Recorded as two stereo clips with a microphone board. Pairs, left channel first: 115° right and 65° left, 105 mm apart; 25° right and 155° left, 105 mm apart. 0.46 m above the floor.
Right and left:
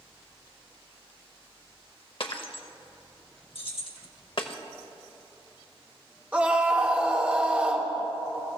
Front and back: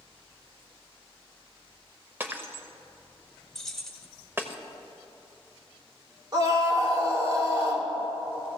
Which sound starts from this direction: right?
Keys jangling, at 3.5 s.